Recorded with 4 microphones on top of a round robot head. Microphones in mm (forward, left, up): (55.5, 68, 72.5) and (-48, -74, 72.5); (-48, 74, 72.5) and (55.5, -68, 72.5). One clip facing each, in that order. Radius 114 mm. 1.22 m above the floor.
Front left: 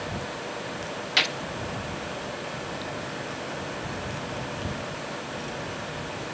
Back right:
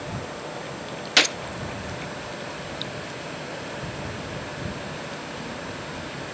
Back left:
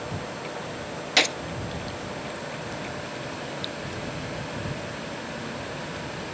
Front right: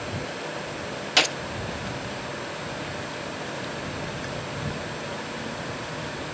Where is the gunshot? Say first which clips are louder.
Back right 7 dB, even; 155° right.